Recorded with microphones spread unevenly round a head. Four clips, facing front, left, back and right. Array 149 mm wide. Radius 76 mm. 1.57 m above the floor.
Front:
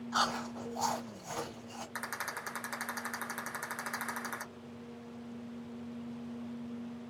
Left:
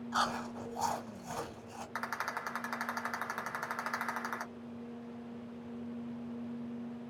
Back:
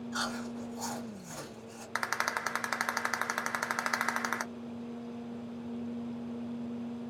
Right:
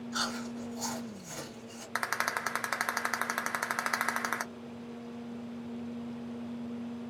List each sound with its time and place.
0.1 s chewing: 35° left, 1.6 m
1.9 s a rattle: 125° right, 0.6 m